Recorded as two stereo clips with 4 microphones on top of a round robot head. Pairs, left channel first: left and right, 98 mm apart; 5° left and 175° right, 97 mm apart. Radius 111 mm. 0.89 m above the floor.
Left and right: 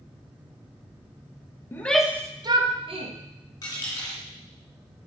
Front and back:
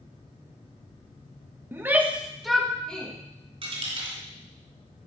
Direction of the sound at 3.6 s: 155° left.